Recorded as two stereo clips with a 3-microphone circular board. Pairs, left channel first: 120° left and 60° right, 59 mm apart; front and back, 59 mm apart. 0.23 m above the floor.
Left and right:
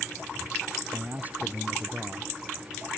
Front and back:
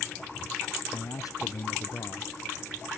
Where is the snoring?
I don't hear snoring.